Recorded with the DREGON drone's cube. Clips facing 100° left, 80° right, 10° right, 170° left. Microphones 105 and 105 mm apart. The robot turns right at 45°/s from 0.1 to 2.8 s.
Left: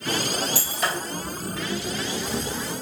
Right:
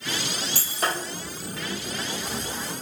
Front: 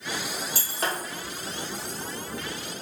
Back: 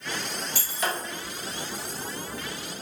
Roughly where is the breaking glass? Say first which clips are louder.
Left 1 dB, back 1 dB; ahead right.